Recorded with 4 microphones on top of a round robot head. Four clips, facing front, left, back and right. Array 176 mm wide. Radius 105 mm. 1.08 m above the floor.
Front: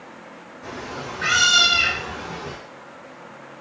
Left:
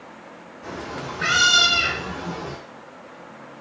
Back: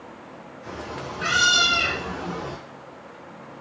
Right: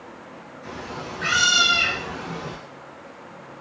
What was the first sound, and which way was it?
A cat meowing, 55° left.